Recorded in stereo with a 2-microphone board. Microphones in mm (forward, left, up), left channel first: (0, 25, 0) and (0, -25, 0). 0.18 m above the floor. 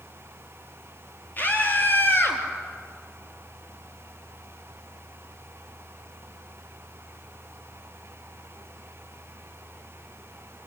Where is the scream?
35° left (ahead or behind), 4 m; by 2.4 s 45° left (ahead or behind), 3.5 m.